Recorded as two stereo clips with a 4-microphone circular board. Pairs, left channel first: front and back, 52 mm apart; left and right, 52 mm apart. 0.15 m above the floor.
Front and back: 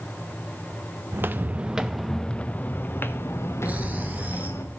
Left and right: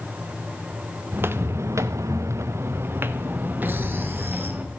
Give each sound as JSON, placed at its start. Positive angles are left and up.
{"t": 1.1, "sound": "footsteps", "azimuth_deg": -135, "distance_m": 0.8}
{"t": 3.6, "sound": "snoring", "azimuth_deg": -125, "distance_m": 1.1}